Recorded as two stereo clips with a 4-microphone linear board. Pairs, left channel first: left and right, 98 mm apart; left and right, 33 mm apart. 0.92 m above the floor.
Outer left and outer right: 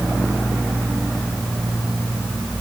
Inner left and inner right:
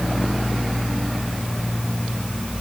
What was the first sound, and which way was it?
Only background noise.